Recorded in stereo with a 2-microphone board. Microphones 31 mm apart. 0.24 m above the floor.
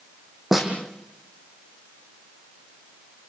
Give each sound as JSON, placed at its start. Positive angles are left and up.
{"t": 0.5, "sound": "a snare drum", "side_deg": -10, "distance_m": 3.5}